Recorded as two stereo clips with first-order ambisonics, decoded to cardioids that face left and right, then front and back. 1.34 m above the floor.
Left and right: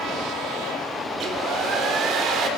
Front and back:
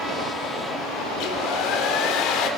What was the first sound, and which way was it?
A hair dryer, 40° right.